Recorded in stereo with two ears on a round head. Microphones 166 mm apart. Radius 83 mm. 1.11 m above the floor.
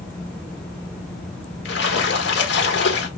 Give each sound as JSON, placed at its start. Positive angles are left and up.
{"t": 1.6, "sound": "a splash", "side_deg": 60, "distance_m": 1.2}